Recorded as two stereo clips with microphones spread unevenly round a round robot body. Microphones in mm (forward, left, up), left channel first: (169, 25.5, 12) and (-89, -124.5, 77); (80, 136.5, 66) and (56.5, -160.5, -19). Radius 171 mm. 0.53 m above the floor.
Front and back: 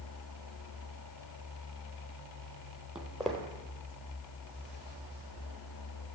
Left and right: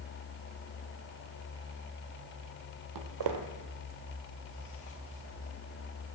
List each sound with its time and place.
3.0 s footsteps: 70° right, 1.1 m; by 6.2 s 105° left, 1.8 m